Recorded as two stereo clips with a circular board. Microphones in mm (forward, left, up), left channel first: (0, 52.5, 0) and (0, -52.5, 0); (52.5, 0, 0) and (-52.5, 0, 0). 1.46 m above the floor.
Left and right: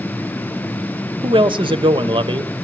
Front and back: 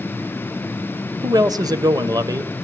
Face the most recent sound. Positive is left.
turn(degrees=-130)